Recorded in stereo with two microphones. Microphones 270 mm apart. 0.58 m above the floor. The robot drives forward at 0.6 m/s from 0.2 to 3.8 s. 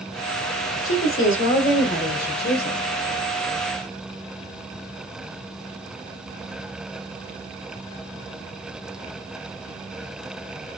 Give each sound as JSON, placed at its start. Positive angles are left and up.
{"t": 0.8, "sound": "a woman speaking", "side_deg": 55, "distance_m": 1.4}